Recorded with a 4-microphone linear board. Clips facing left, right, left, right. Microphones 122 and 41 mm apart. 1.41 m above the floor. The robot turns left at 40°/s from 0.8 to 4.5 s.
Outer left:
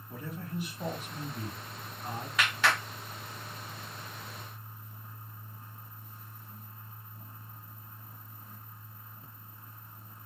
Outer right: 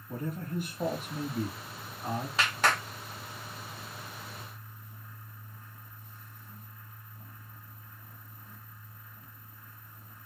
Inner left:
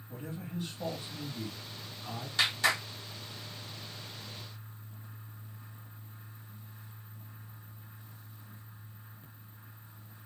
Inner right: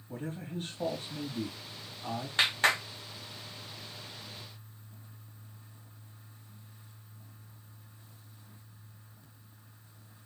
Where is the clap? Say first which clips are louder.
Even, inner right 2 dB; 30° right (ahead or behind), 1.2 m; by 2.8 s 45° right (ahead or behind), 1.2 m.